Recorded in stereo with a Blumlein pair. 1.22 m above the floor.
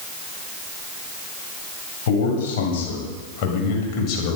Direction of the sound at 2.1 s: 55° left.